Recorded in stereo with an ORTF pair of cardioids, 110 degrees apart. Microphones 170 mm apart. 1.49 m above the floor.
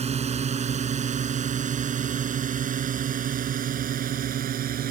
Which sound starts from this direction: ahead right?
A drone, at 0.0 s.